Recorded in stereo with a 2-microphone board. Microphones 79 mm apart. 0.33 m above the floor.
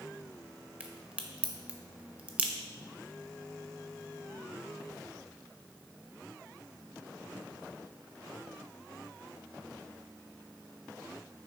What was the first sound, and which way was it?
A crack, 20° right (ahead or behind).